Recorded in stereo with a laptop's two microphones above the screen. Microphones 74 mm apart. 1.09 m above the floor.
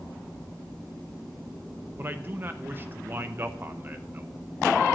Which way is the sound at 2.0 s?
30° right (ahead or behind).